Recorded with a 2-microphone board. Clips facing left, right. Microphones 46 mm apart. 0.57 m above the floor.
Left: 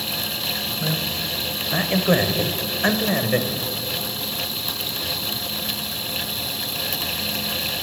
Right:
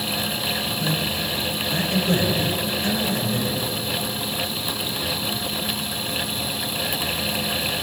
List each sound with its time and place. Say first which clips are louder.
0.8 s a man speaking: right 1 dB; 15° left (ahead or behind), 3.5 m; by 3.5 s 65° left (ahead or behind), 3 m